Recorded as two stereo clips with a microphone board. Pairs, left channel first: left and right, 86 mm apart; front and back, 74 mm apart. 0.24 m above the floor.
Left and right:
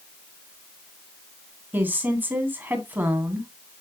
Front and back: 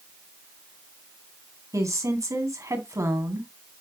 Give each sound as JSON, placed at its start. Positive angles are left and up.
{"t": 1.7, "sound": "a woman speaking", "azimuth_deg": -150, "distance_m": 2.0}